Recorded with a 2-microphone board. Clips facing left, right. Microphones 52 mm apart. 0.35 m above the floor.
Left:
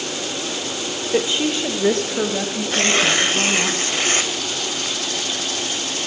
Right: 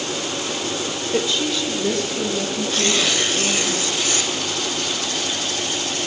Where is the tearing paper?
40° left (ahead or behind), 1.1 m.